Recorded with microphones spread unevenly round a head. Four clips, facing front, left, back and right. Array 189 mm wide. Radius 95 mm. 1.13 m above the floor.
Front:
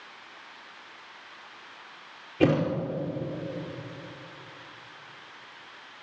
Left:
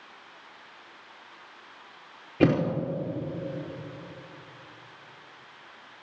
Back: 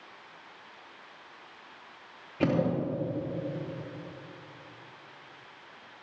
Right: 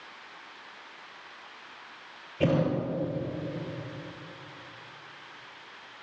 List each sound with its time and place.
2.4 s a thud: 80° left, 5 m